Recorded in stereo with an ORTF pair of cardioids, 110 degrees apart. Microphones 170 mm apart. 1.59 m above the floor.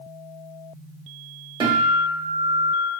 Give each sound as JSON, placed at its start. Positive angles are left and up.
{"t": 1.6, "sound": "a guitar", "azimuth_deg": -30, "distance_m": 2.0}